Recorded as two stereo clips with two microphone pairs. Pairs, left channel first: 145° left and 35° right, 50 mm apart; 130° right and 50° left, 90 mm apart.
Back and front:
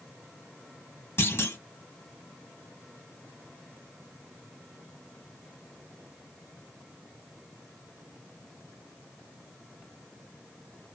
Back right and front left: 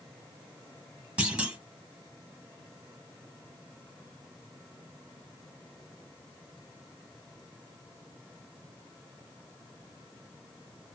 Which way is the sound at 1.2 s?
130° left.